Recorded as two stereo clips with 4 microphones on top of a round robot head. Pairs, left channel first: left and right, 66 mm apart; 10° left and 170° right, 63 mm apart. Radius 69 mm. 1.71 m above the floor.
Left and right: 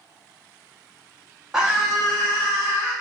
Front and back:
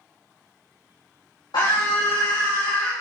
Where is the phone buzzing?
I don't hear a phone buzzing.